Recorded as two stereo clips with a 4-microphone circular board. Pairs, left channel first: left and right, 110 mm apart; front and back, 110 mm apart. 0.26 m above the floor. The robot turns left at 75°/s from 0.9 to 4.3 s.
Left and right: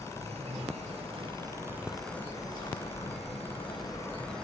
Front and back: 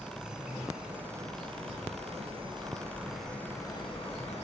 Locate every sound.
0.0 s an insect: 100° right, 0.9 m; by 4.4 s 5° left, 0.9 m